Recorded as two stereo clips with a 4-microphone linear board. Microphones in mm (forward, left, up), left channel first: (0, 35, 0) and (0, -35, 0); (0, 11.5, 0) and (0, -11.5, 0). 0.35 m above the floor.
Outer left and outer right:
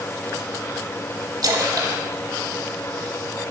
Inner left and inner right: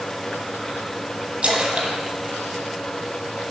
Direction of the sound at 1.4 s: 70° right (ahead or behind).